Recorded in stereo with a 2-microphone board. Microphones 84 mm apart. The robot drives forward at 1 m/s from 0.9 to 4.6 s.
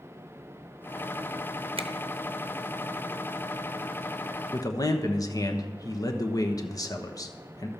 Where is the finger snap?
80° right, 0.7 m; by 1.9 s 70° right (ahead or behind), 0.7 m.